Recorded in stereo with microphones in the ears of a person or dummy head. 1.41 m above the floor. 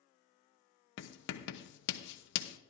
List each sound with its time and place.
1.0 s writing: 65° left (ahead or behind), 0.9 m